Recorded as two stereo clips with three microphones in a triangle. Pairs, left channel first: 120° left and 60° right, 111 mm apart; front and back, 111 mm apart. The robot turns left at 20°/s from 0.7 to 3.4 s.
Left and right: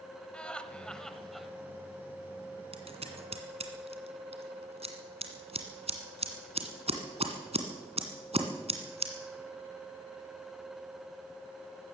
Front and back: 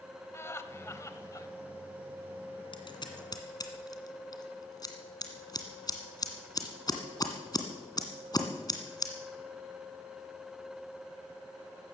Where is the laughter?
45° left, 1.1 m; by 1.5 s 30° left, 1.1 m.